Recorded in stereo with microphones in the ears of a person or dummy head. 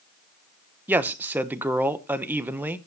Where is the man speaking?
Centre (ahead or behind), 0.8 m.